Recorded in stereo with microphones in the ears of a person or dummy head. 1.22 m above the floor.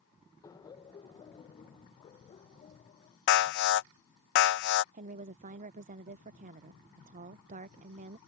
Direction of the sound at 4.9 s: 40° right (ahead or behind).